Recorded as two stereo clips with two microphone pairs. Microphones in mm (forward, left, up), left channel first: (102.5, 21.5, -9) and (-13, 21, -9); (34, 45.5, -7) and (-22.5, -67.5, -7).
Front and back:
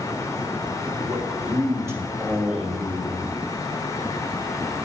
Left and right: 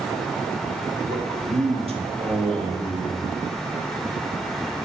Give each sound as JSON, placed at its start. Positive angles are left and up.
{"t": 1.1, "sound": "a man speaking", "azimuth_deg": -130, "distance_m": 2.0}